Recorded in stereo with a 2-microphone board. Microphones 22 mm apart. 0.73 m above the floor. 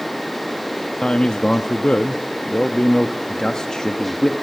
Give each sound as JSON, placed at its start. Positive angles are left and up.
{"t": 1.0, "sound": "a man speaking", "side_deg": 40, "distance_m": 0.7}
{"t": 3.3, "sound": "a man speaking", "side_deg": 30, "distance_m": 1.1}